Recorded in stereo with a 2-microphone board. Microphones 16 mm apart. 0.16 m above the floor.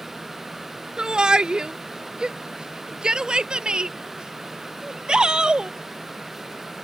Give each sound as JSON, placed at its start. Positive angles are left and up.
{"t": 1.0, "sound": "a shout", "side_deg": -55}